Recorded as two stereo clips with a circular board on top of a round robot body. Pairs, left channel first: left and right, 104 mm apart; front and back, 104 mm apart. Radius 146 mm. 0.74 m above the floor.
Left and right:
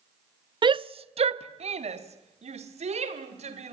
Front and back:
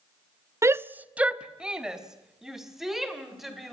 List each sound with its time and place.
0.6 s a shout: 125° right, 0.6 m; by 3.8 s 90° right, 4 m